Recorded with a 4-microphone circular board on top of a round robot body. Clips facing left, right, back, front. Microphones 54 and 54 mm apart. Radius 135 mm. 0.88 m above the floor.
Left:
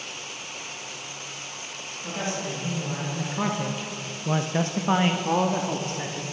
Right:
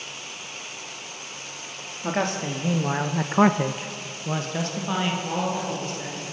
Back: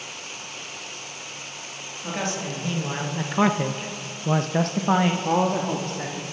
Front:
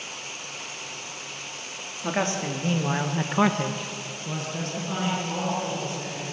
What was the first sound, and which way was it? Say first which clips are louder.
A man speaking: right 5 dB, front 3 dB; 60° right.